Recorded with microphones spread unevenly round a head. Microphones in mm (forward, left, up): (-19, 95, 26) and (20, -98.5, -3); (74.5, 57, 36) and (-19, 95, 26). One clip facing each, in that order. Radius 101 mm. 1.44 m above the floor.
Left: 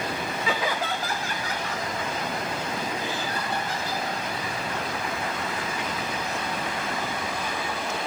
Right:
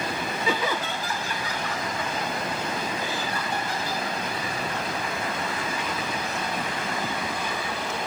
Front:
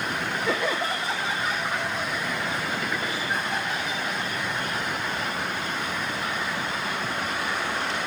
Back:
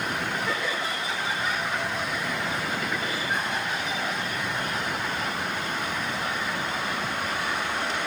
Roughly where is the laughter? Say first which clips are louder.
Right 1 dB, front 3 dB; right.